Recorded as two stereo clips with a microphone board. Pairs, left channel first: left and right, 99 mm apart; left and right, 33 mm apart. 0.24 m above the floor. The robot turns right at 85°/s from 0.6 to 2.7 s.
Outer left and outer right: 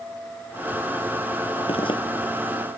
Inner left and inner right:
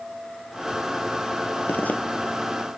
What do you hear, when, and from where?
1.7 s a zipper: 75° left (ahead or behind); by 2.0 s 55° left (ahead or behind)